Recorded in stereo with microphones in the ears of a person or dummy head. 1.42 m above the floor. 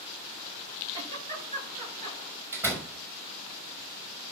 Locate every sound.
0.9 s a giggle: 35° right (ahead or behind), 9.5 m
2.5 s a door slam: 15° right (ahead or behind), 5 m